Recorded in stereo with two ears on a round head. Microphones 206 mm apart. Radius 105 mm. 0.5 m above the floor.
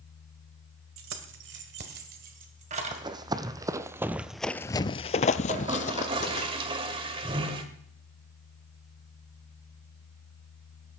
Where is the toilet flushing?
20° right (ahead or behind), 1.5 m.